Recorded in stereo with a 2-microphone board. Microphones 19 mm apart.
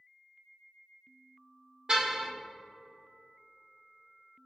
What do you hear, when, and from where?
1.9 s a car horn: 40° right (ahead or behind), 2.5 m